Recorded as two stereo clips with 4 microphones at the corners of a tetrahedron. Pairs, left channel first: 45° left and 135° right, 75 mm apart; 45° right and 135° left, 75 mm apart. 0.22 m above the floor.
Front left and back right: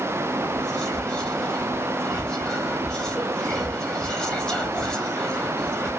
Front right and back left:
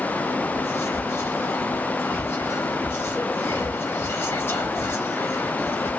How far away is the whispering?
About 1.1 m.